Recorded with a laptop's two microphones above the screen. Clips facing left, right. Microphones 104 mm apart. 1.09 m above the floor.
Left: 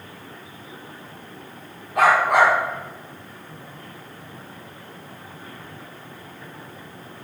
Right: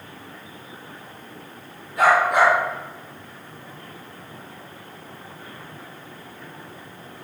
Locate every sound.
1.9 s a dog barking: 80° left, 4 m